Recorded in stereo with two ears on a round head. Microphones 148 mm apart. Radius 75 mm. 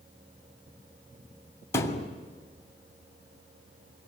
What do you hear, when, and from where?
1.7 s a thud: 15° left (ahead or behind), 2.5 m